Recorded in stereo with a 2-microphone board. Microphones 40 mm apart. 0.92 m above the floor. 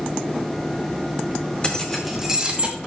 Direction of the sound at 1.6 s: 25° left (ahead or behind).